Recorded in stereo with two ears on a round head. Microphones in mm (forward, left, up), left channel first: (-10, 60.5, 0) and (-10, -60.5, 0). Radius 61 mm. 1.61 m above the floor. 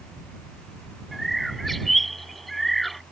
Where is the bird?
Centre (ahead or behind).